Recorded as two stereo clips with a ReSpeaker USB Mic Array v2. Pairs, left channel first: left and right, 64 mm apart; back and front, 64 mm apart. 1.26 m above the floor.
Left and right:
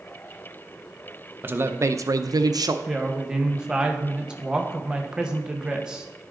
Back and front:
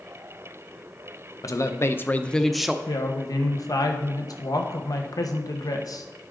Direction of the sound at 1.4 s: 150° right.